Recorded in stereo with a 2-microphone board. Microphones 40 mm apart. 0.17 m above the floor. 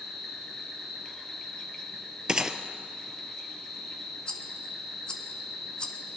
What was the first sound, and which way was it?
An insect, 15° left (ahead or behind).